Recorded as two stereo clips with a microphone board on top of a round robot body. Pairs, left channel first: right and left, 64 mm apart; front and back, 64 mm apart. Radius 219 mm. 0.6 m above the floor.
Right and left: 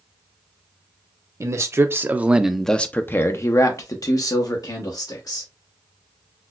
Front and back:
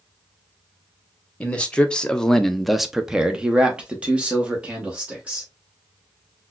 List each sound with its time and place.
1.4 s a man speaking: 65° left, 0.9 m; by 5.5 s 110° right, 1.7 m